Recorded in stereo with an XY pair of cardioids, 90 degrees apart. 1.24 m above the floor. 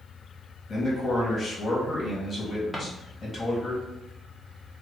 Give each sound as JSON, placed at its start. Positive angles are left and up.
{"t": 0.7, "sound": "a man speaking", "azimuth_deg": 35, "distance_m": 1.8}
{"t": 2.7, "sound": "a drawer", "azimuth_deg": 5, "distance_m": 1.1}